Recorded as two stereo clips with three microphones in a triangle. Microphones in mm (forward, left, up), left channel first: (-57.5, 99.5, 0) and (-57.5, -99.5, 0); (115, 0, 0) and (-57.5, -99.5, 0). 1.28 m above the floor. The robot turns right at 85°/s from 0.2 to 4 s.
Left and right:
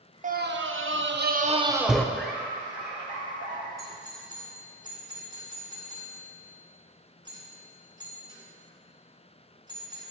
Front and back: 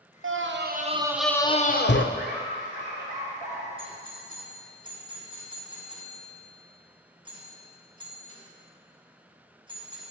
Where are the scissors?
No scissors in this recording.